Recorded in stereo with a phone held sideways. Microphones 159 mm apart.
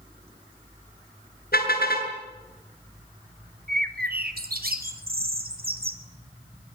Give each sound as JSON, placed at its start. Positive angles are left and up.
{"t": 1.5, "sound": "a car horn", "side_deg": 75, "distance_m": 7.0}
{"t": 3.7, "sound": "a bird", "side_deg": -70, "distance_m": 3.0}